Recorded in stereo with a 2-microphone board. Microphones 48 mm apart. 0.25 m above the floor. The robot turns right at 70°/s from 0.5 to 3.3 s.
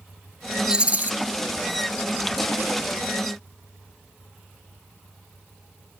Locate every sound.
0.7 s a rattle: 15° right (ahead or behind), 0.6 m; by 1.1 s 45° right (ahead or behind), 0.6 m